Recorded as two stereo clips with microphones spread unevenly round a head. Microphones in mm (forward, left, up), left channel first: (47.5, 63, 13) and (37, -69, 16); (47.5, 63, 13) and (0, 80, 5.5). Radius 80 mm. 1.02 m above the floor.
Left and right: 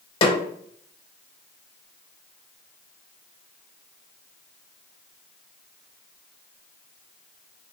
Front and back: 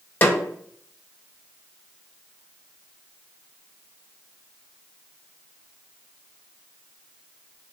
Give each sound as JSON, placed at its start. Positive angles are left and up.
{"t": 0.2, "sound": "a snare drum", "azimuth_deg": 35, "distance_m": 0.9}